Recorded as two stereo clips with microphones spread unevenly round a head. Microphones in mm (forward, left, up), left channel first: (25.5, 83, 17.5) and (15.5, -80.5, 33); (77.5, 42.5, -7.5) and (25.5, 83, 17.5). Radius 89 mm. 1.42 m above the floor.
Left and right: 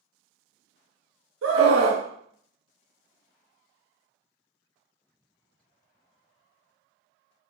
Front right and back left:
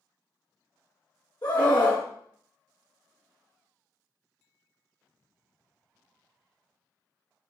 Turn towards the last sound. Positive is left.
turn(degrees=-95)